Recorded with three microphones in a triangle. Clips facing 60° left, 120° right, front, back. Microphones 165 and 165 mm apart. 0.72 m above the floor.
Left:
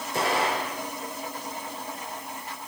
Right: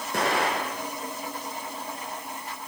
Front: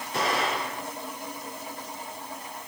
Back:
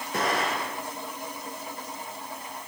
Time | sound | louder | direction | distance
0.1 | an explosion | even, even | 140° right | 6 m